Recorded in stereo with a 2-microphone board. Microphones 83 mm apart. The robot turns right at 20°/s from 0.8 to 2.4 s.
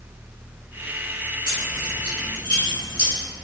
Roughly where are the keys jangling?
Right.